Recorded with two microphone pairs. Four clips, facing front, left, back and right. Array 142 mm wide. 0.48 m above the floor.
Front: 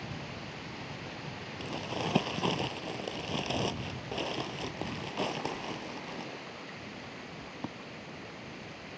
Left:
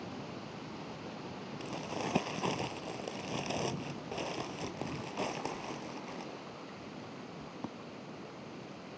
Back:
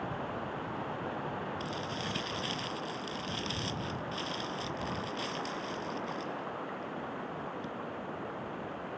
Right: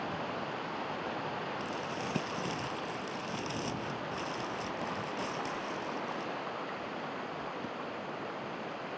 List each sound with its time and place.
0.0 s running water: 115° right
1.6 s crumpling: 35° left